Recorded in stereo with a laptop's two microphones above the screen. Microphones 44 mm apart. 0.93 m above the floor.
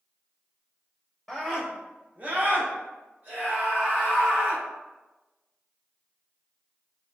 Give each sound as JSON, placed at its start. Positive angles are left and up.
{"t": 1.3, "sound": "a scream", "side_deg": 0, "distance_m": 0.8}